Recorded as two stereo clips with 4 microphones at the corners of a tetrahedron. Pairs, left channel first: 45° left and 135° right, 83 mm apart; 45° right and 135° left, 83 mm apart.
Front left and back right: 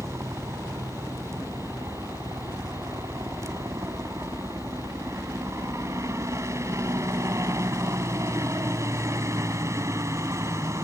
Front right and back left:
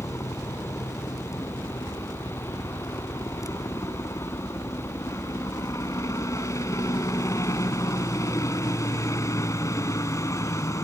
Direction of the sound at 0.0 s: 90° right.